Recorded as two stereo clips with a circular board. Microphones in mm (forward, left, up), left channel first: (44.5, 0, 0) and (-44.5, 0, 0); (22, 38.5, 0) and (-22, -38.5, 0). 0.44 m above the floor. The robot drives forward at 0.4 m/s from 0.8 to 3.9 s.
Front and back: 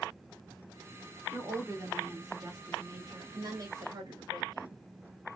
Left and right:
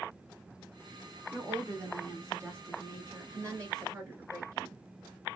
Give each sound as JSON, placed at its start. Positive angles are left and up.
{"t": 1.3, "sound": "a woman speaking", "azimuth_deg": -155, "distance_m": 1.2}